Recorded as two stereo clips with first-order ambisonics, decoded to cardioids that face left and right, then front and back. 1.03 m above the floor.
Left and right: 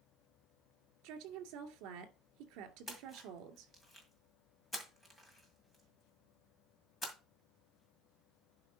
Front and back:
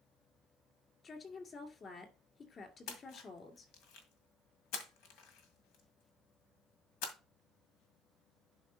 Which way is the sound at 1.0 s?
65° right.